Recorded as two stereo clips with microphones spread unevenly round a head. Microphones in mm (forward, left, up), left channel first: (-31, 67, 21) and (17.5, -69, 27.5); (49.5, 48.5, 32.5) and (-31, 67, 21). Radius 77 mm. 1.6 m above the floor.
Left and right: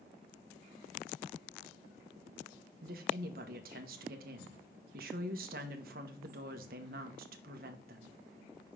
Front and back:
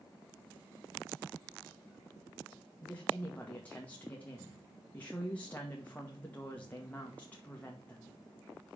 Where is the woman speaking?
90° right, 1.3 m.